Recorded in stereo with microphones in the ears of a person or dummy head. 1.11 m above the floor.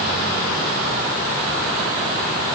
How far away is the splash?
No splash in this recording.